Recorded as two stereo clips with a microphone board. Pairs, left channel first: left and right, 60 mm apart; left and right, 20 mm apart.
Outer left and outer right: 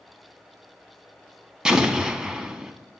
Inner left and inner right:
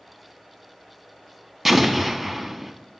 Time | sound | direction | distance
1.6 | an explosion | 10° right (ahead or behind) | 0.6 m